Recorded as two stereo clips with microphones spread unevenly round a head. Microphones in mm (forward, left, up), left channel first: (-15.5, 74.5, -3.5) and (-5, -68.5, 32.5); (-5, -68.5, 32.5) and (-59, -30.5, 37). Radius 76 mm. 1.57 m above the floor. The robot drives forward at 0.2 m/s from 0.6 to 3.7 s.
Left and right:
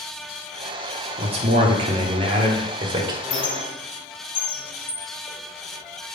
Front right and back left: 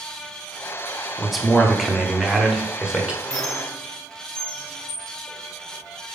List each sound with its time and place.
1.2 s a man speaking: 125° right, 0.9 m; by 3.1 s 140° right, 1.2 m
3.2 s a squeak: 40° left, 0.8 m; by 6.2 s 50° left, 0.7 m